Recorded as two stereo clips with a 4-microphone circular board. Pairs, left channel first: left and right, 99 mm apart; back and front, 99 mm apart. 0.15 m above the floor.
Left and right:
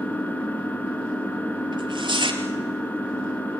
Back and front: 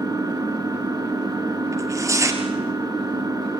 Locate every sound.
0.0 s an engine running: 25° left, 1.6 m
1.7 s tearing paper: 55° right, 3 m